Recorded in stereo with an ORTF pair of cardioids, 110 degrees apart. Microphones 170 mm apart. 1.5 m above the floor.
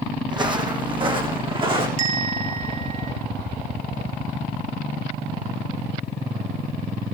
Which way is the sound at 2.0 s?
40° right.